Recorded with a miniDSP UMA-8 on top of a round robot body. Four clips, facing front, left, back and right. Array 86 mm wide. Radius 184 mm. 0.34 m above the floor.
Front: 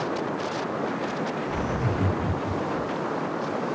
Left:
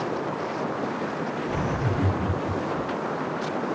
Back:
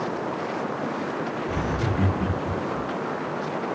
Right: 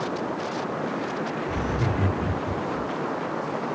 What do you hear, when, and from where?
1.5 s laughter: 160° right, 1.5 m; by 2.9 s 145° left, 0.9 m